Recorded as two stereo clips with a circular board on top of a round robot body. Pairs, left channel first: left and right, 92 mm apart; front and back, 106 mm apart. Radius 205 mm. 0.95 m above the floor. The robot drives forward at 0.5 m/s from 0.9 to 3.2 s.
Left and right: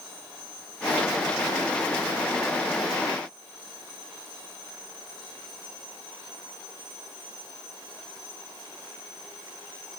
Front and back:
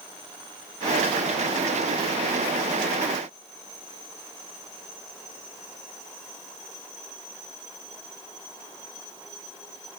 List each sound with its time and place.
Only background noise.